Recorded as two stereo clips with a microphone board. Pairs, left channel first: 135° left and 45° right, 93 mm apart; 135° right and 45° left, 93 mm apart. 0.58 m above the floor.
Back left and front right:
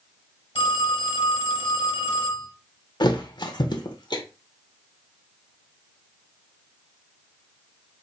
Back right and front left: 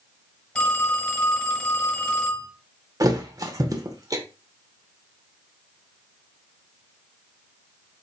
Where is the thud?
95° left, 0.7 m.